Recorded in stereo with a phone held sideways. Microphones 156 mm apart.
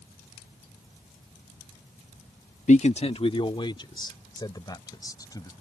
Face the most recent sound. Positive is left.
turn(degrees=25)  # may be behind; listen again after turning